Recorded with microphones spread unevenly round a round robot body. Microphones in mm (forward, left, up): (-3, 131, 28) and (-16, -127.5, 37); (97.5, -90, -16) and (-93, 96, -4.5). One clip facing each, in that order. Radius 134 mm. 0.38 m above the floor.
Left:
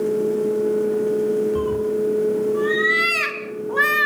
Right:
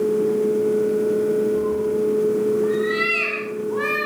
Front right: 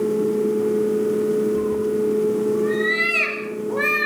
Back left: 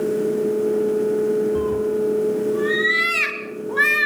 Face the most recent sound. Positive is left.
turn(degrees=80)